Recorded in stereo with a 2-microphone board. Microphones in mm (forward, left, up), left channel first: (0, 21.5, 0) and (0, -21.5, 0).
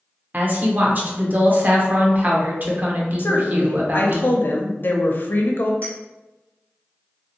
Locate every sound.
0.3 s a woman speaking: 45° right (ahead or behind), 0.7 m
3.2 s a woman speaking: 50° left (ahead or behind), 0.5 m
5.8 s a clink: 40° right (ahead or behind), 1.7 m